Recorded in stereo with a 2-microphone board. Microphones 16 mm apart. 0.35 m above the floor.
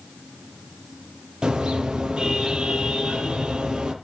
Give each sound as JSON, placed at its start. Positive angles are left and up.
{"t": 1.4, "sound": "a car horn", "side_deg": -70, "distance_m": 5.5}